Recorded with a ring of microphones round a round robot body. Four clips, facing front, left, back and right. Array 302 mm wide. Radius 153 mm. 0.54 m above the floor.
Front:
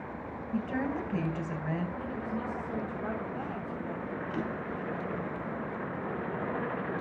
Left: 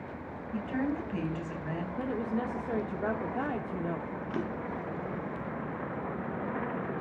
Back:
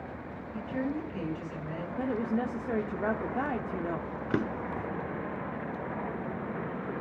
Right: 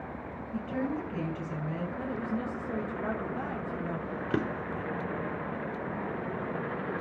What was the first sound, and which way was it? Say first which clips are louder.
A woman speaking: left 1 dB, front 1 dB; 25° left.